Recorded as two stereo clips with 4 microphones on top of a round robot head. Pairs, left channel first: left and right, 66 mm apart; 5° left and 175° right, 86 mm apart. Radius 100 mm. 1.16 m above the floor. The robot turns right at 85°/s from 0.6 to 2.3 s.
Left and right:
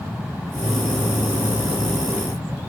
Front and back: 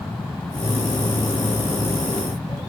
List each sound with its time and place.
Only background noise.